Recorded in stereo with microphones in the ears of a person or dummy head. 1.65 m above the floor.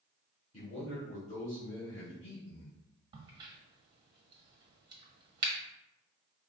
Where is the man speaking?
35° left (ahead or behind), 1.6 m.